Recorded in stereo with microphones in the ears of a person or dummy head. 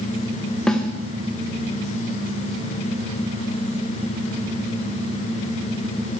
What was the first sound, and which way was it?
A snare drum, centre (ahead or behind).